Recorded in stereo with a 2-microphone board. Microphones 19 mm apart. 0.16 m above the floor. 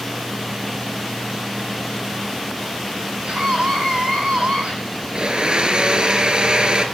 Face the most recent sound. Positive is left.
turn(degrees=-50)  # may be behind; listen again after turning